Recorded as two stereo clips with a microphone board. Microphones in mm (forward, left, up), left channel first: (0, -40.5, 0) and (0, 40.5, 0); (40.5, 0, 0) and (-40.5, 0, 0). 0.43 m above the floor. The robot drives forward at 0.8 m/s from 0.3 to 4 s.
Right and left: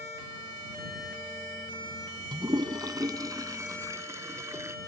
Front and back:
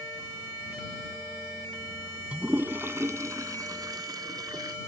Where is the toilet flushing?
105° left; by 4.8 s 140° left.